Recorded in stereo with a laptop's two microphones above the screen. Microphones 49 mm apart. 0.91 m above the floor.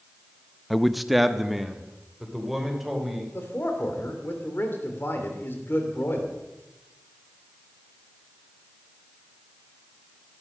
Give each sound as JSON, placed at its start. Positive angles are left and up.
{"t": 0.7, "sound": "a man speaking", "side_deg": 0, "distance_m": 0.5}
{"t": 3.3, "sound": "a man speaking", "side_deg": 45, "distance_m": 3.0}